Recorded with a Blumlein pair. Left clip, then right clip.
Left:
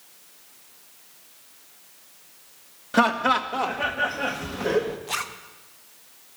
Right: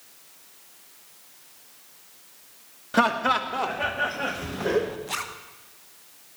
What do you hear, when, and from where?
2.9 s laughter: 5° left, 1.3 m
5.1 s a zipper: 5° left, 0.8 m